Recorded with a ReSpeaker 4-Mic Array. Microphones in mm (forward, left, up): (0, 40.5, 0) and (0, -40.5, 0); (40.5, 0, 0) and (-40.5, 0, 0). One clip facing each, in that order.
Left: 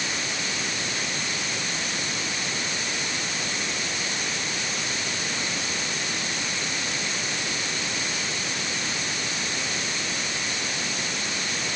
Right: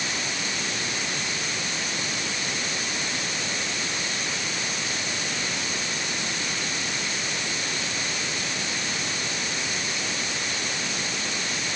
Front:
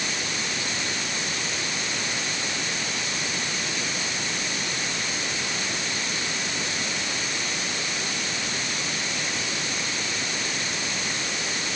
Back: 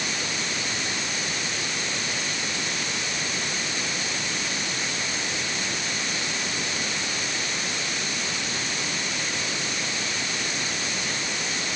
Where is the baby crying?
No baby crying in this recording.